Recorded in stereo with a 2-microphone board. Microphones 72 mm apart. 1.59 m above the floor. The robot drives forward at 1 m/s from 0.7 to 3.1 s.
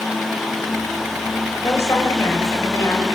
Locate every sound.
1.6 s a woman speaking: 35° left (ahead or behind), 10 m; by 3.2 s 40° left (ahead or behind), 8.5 m